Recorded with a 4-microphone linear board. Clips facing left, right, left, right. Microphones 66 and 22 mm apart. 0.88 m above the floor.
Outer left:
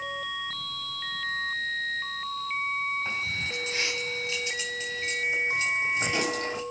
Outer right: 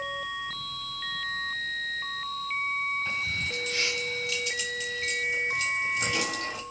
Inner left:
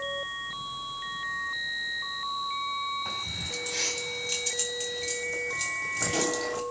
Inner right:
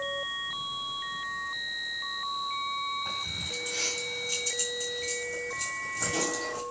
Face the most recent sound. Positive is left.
turn(degrees=35)  # may be behind; listen again after turning